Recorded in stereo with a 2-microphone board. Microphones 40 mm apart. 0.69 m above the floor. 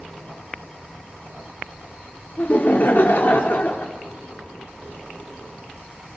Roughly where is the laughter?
Left.